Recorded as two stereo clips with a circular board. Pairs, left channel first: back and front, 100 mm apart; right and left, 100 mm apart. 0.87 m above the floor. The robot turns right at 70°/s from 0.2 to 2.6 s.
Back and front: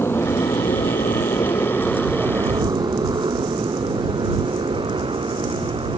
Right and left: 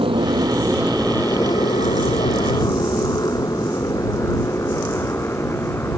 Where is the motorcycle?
115° left; by 6.0 s 25° right.